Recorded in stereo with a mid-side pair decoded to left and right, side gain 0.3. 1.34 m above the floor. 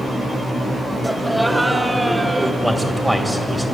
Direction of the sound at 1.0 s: 5° right.